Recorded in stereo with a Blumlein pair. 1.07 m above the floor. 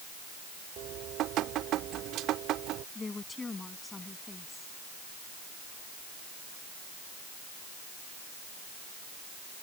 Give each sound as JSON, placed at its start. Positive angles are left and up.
{"t": 0.8, "sound": "dripping", "azimuth_deg": -35}
{"t": 3.0, "sound": "a woman speaking", "azimuth_deg": 10}